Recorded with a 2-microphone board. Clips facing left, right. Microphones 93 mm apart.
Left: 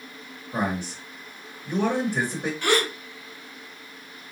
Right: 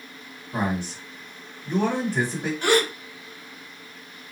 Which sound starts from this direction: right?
A gasp, at 2.6 s.